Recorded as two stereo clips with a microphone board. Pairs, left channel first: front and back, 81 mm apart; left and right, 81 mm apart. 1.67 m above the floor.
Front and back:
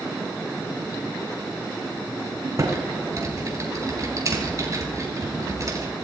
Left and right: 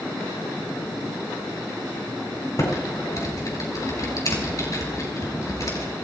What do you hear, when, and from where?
2.6 s typing on a keyboard: 135° left, 5.5 m